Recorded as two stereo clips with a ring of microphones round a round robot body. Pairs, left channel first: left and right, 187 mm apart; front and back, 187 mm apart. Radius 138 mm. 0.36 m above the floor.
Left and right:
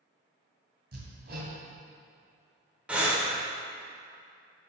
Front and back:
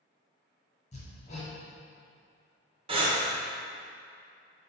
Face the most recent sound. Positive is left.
turn(degrees=-165)